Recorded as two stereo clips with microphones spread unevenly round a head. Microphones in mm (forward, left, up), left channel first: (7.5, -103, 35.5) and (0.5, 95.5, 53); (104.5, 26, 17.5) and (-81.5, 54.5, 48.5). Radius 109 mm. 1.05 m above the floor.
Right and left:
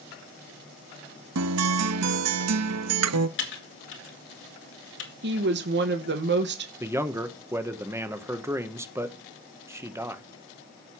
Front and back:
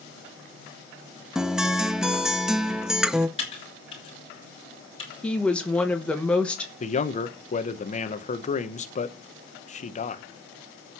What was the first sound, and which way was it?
A guitar, 85° left.